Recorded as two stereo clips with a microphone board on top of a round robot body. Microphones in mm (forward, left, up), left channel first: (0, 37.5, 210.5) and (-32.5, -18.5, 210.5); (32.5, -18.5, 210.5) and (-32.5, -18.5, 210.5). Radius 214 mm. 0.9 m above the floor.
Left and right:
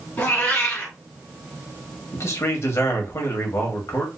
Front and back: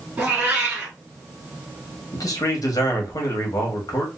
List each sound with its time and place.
0.2 s a cat meowing: 115° left, 1.5 m
2.1 s a man speaking: 20° left, 1.6 m